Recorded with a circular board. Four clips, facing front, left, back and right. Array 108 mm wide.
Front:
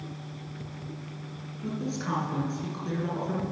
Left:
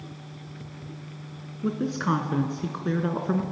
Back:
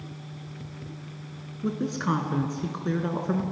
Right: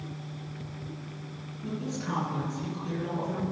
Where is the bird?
I don't hear a bird.